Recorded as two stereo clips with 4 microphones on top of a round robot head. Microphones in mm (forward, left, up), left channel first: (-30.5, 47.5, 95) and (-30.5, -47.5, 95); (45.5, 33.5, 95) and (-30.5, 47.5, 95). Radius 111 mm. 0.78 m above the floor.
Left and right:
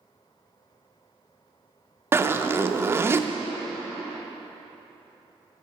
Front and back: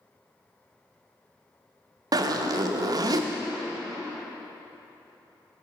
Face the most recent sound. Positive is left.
turn(degrees=-155)